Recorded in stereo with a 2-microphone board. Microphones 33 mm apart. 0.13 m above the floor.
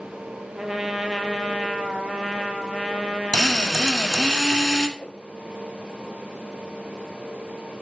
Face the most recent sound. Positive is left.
turn(degrees=35)  # may be behind; listen again after turning